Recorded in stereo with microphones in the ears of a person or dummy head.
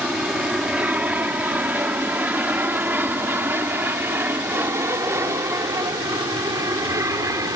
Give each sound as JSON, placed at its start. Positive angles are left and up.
{"t": 0.0, "sound": "an aircraft", "side_deg": -5}